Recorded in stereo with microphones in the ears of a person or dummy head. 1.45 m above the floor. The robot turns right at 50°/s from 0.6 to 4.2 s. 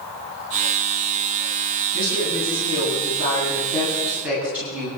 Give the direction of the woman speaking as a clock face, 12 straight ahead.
9 o'clock.